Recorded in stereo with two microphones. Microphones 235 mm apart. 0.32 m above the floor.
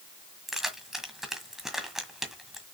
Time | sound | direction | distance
0.5 | keys jangling | centre (ahead or behind) | 1.7 m